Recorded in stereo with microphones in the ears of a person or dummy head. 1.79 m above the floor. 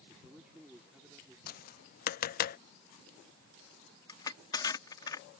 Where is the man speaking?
5° left (ahead or behind).